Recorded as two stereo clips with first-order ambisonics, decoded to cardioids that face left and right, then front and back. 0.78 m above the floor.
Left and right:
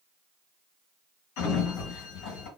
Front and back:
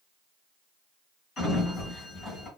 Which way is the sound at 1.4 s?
65° left.